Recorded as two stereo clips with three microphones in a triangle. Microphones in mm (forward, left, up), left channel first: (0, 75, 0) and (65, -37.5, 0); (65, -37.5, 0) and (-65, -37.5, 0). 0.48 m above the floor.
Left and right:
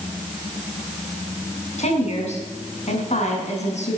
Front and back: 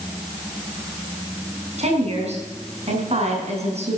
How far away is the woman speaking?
About 5 m.